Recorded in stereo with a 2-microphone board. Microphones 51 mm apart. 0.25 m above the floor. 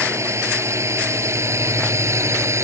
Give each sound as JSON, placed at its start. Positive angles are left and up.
{"t": 0.0, "sound": "a drone", "side_deg": -65}